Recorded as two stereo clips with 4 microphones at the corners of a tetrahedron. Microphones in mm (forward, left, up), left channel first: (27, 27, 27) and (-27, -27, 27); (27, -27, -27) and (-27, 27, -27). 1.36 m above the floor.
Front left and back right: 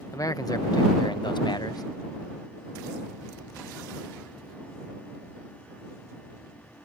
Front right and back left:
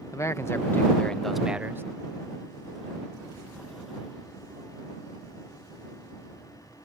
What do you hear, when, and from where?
0.1 s a man speaking: 5° left; by 1.8 s 75° left